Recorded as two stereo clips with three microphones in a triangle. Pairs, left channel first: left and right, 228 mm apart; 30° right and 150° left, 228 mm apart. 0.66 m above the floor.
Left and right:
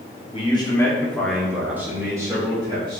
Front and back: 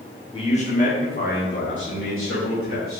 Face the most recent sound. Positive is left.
turn(degrees=-20)